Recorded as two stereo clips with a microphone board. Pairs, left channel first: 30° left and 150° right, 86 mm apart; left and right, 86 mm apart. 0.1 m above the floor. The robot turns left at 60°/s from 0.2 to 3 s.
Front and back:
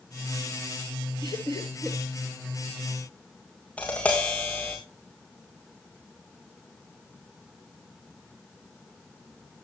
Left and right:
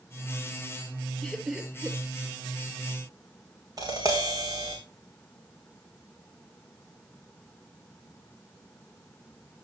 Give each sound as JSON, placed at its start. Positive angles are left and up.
{"t": 1.2, "sound": "laughter", "azimuth_deg": 10, "distance_m": 2.5}
{"t": 3.8, "sound": "tapping", "azimuth_deg": -45, "distance_m": 3.5}